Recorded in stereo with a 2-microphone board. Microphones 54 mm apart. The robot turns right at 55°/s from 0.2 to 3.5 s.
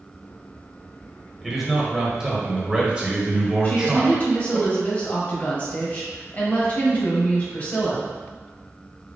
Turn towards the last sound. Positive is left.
turn(degrees=30)  # may be behind; listen again after turning